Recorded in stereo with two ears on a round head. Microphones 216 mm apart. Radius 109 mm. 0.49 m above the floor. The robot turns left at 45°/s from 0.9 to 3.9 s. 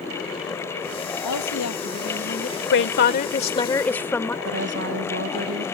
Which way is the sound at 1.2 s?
85° left.